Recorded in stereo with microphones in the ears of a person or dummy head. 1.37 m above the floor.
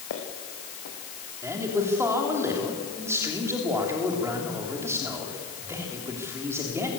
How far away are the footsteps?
About 4.5 m.